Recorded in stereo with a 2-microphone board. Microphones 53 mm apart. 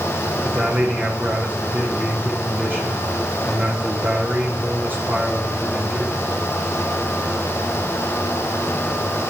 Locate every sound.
0.4 s a man speaking: 40° right (ahead or behind), 7.5 m